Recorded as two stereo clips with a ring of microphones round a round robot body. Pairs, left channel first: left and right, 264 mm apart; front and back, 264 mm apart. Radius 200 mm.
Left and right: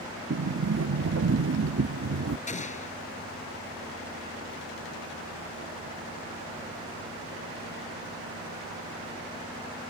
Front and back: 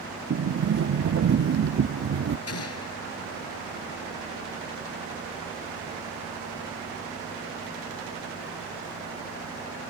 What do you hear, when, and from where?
0.3 s a sliding door: 135° right
2.5 s an explosion: 25° left